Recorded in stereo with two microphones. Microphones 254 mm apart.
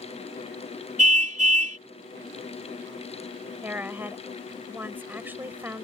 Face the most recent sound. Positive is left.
turn(degrees=-10)  # may be behind; listen again after turning